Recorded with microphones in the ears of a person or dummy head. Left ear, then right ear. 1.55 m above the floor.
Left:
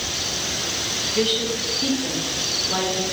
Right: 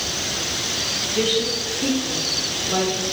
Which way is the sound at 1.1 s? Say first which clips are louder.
Right 1 dB; 5° left (ahead or behind).